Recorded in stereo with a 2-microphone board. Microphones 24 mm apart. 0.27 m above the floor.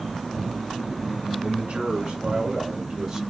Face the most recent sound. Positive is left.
turn(degrees=-10)  # may be behind; listen again after turning